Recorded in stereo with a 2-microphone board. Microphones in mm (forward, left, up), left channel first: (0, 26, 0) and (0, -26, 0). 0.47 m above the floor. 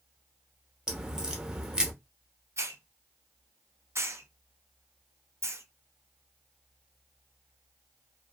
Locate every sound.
0.9 s a crack: 15° right (ahead or behind), 0.6 m
2.6 s a hiss: 60° right (ahead or behind), 0.6 m